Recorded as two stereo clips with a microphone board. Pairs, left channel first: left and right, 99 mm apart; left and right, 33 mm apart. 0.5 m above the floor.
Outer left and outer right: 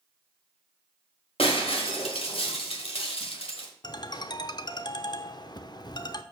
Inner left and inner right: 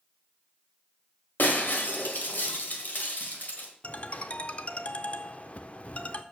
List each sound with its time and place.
1.4 s breaking glass: 70° left (ahead or behind), 1.5 m
3.8 s a ringtone: 45° left (ahead or behind), 0.5 m